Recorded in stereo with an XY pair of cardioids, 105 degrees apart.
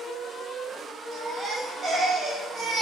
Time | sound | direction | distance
1.1 | a baby crying | 35° right | 1.4 m